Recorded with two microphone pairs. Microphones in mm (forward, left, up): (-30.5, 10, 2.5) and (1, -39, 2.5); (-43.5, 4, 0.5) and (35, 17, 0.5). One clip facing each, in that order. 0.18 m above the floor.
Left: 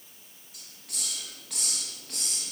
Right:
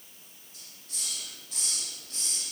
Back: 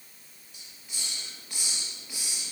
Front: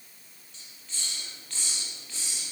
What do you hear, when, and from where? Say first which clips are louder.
0.5 s a hiss: left 3 dB, even; 110° left, 3.5 m